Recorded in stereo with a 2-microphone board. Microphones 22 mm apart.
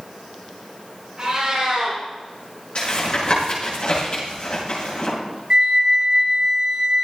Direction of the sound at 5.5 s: 40° right (ahead or behind).